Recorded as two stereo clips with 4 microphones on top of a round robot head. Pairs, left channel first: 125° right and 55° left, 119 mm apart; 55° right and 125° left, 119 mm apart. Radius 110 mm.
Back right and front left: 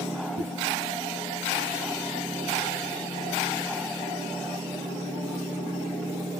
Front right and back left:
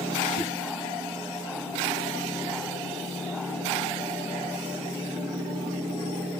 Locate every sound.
0.4 s a whoosh: 60° left, 1.4 m